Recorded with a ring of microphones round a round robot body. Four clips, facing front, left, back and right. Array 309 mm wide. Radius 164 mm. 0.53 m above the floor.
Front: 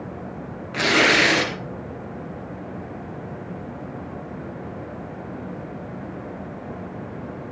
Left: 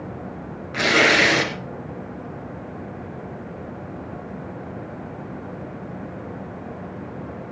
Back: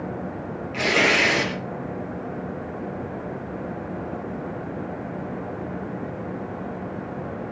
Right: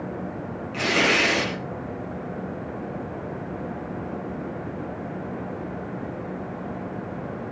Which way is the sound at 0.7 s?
50° left.